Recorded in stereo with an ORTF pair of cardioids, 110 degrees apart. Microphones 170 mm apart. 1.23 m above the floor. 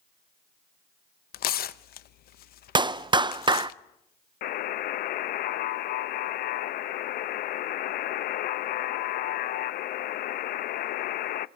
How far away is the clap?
About 0.6 m.